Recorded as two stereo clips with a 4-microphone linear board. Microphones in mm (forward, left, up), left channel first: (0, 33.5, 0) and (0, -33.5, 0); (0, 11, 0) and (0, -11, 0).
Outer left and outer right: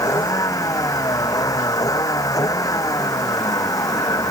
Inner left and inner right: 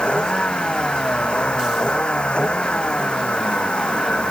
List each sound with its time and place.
0.0 s a vehicle: 60° left (ahead or behind)